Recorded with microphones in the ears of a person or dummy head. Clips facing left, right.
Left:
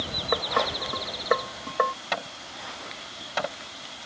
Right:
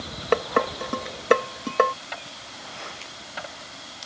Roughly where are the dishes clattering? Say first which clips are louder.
Right 5 dB; right.